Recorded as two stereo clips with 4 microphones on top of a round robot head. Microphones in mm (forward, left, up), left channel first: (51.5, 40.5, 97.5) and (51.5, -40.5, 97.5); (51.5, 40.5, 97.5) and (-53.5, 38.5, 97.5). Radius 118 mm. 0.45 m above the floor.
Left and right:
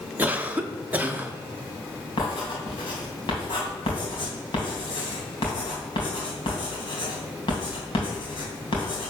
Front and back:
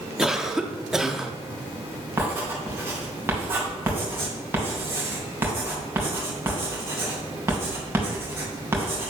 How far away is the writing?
About 2.5 m.